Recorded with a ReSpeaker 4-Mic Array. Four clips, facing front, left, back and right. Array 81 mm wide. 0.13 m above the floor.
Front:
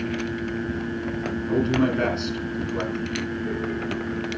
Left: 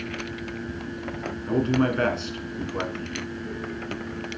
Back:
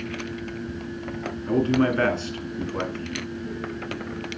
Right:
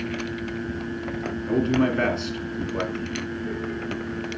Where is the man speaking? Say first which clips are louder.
Right 1 dB, back 1 dB; 170° left, 1.7 m.